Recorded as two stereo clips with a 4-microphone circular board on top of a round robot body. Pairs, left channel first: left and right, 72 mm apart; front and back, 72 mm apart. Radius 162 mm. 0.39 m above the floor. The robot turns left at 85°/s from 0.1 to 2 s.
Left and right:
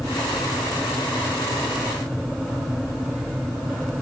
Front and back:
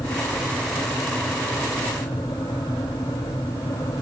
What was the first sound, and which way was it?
Only background noise.